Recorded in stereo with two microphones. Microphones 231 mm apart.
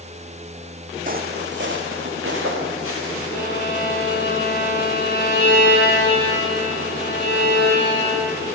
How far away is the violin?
About 1.6 m.